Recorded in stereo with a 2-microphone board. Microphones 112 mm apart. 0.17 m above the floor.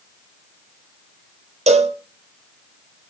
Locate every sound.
1.7 s a cowbell: 85° right, 0.7 m